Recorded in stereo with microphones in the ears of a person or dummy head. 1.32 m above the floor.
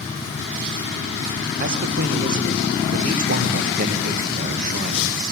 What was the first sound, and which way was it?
A man speaking, 50° right (ahead or behind).